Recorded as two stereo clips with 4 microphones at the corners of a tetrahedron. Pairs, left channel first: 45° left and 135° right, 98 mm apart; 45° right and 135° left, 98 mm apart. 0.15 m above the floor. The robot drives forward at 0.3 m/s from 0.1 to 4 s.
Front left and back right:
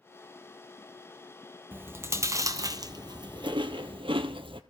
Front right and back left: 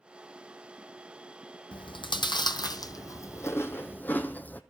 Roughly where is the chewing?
Ahead right.